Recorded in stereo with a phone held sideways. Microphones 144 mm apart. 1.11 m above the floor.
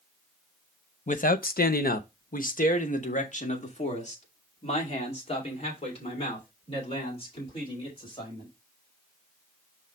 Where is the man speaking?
55° left (ahead or behind), 0.7 m; by 8.5 s 35° left (ahead or behind), 4.5 m.